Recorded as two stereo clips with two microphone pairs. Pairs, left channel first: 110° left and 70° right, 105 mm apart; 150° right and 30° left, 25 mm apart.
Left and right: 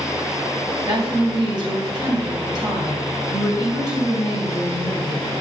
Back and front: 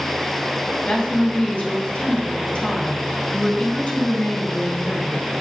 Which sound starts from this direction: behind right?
A woman speaking, at 0.8 s.